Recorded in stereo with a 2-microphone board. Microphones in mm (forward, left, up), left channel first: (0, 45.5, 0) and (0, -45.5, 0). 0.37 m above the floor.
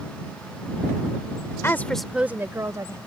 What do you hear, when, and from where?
1.6 s a woman speaking: 30° left (ahead or behind); by 3.0 s 40° right (ahead or behind)